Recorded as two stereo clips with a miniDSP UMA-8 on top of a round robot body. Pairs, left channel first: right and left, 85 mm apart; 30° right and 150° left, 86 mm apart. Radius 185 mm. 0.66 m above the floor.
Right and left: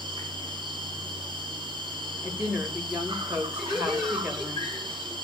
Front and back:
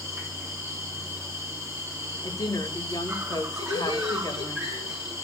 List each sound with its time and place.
0.0 s an insect: 90° left, 4 m
2.2 s a woman speaking: 15° left, 3 m
3.6 s laughter: straight ahead, 3 m